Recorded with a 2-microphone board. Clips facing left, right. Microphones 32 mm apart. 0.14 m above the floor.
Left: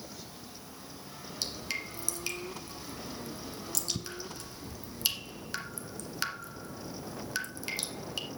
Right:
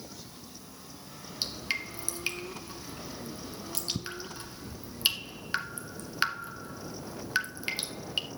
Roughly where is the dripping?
Right.